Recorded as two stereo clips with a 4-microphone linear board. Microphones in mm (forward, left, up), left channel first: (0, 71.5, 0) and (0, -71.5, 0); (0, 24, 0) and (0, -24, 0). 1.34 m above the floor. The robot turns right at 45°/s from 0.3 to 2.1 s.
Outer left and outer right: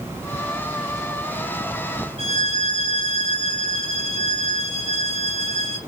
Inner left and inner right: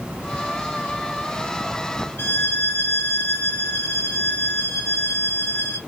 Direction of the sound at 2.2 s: 70° left (ahead or behind).